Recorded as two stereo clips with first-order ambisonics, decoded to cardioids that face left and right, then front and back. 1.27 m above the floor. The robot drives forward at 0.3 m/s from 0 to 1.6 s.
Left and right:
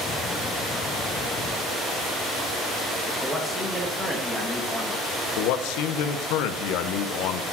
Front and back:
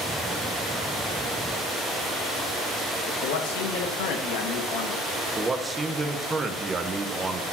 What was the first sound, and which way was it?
A man speaking, straight ahead.